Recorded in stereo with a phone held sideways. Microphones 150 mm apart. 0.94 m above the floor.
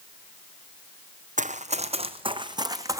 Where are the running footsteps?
55° right (ahead or behind), 2 m; by 3.0 s 20° right (ahead or behind), 2.5 m.